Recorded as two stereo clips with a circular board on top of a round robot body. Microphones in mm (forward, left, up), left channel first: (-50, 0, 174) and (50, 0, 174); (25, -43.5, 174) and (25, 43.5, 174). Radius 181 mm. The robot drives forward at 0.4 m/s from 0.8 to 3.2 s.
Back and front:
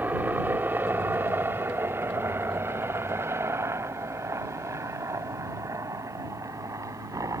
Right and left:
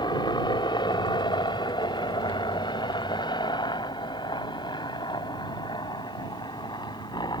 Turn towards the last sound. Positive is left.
turn(degrees=-55)